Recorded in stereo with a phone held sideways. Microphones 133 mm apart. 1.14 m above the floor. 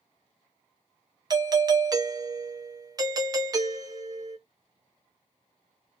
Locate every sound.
1.3 s a doorbell: 30° right (ahead or behind), 0.5 m